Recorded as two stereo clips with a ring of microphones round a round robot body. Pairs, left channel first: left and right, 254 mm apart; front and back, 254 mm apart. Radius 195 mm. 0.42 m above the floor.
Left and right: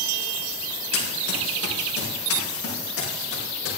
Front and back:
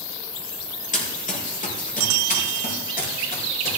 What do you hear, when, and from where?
0.9 s running footsteps: 60° left, 4.5 m; by 3.8 s 55° left, 6 m